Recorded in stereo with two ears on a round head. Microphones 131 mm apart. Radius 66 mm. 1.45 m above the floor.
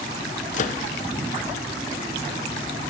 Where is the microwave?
55° left (ahead or behind), 0.8 m.